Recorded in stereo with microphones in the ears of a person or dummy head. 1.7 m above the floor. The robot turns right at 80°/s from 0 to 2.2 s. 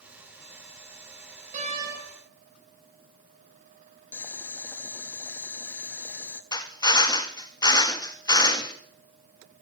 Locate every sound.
1.5 s a door slam: 50° right, 2.5 m; by 2.0 s 15° right, 2.5 m
4.1 s boiling: 5° left (ahead or behind), 0.5 m
6.5 s a drill: 25° left (ahead or behind), 0.6 m